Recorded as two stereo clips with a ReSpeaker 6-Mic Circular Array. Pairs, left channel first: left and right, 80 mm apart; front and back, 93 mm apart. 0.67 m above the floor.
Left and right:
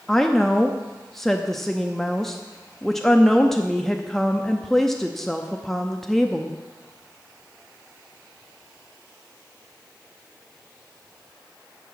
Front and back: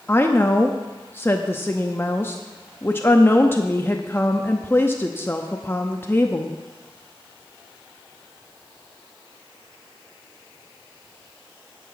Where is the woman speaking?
10° left, 0.6 m.